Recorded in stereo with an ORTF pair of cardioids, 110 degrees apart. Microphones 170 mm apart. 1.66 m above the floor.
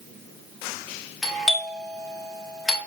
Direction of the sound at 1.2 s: Straight ahead.